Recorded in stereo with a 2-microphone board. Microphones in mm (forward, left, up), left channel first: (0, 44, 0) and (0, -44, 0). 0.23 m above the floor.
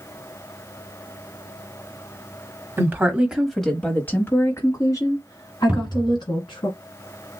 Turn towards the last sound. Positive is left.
turn(degrees=-15)  # may be behind; listen again after turning